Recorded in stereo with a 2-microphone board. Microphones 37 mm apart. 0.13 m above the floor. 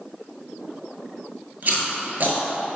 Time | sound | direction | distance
1.6 | chewing | 50° right (ahead or behind) | 0.8 m